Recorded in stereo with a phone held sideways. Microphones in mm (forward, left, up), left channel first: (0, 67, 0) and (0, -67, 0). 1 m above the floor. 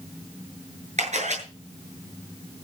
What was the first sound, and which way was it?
A camera shutter, 60° right (ahead or behind).